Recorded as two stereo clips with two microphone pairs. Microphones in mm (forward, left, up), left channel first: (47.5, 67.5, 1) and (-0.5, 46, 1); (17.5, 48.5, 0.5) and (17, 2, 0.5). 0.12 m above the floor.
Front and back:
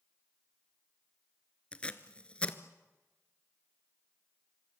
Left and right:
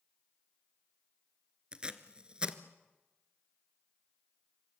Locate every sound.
1.7 s tape being pulled: 30° right, 1.5 m